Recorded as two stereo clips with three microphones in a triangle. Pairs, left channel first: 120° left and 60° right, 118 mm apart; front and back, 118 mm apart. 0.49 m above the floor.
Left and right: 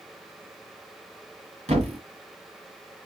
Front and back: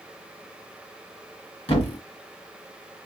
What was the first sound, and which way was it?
A thud, 35° right.